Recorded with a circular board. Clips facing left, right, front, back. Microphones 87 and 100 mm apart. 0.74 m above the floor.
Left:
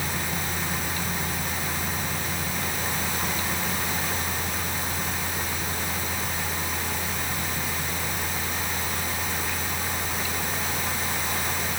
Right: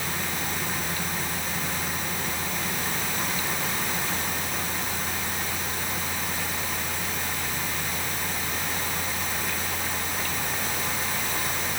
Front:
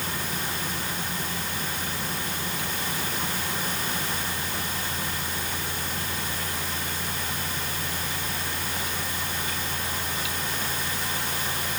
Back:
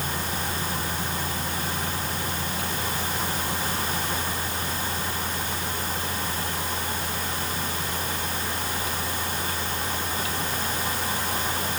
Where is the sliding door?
I don't hear a sliding door.